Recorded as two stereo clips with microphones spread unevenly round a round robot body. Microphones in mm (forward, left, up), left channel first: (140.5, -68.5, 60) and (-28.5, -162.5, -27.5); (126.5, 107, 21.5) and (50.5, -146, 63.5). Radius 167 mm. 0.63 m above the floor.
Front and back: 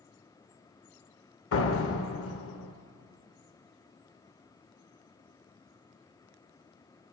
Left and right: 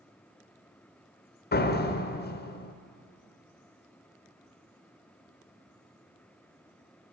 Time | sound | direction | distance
1.5 | a door slam | 20° left | 1.5 m